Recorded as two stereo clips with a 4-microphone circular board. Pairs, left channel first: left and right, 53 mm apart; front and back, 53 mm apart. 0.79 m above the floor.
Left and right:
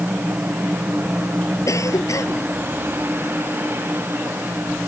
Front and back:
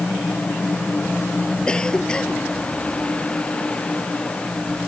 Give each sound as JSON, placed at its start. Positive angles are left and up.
{"t": 1.7, "sound": "a cough", "azimuth_deg": 75}